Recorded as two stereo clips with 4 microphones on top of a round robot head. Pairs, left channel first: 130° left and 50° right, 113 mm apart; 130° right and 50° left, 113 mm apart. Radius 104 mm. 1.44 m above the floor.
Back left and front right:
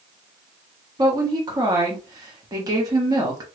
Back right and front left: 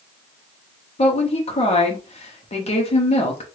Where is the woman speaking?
105° right, 1.0 m.